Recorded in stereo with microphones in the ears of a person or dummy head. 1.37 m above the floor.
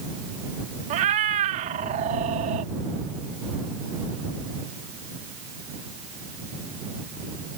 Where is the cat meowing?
35° right (ahead or behind).